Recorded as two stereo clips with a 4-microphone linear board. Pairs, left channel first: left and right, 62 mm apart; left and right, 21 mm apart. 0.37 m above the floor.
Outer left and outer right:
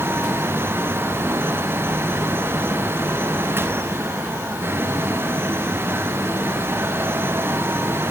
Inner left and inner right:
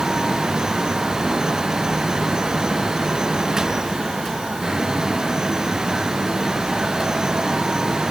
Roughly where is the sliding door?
I don't hear a sliding door.